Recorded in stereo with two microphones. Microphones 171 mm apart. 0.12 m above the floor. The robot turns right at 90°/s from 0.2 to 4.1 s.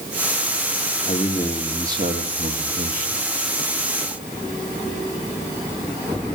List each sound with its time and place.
1.1 s a man speaking: 130° left, 4 m; by 3.2 s 35° right, 4 m